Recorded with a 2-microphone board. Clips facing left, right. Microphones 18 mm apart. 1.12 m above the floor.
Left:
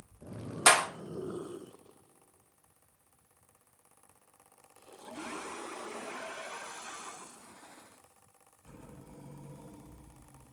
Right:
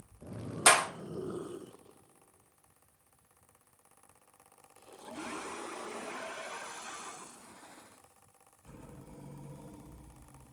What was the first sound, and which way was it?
A clap, 10° left (ahead or behind).